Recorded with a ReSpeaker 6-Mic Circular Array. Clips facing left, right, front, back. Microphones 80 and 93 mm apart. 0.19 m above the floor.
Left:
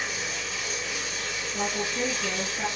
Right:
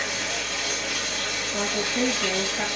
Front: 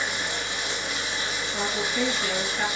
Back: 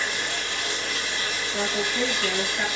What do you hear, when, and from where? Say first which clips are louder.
0.0 s running water: right 3 dB, even; 75° right, 4 m
1.5 s a woman speaking: right 3 dB, back 1 dB; 100° right, 3.5 m